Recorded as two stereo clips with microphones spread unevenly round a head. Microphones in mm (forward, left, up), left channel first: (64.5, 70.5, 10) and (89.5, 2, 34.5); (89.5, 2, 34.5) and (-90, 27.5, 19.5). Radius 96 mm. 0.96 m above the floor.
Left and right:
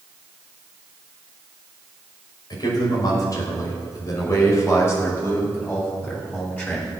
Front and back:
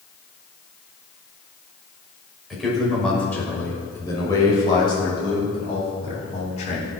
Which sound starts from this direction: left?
A man speaking, at 2.5 s.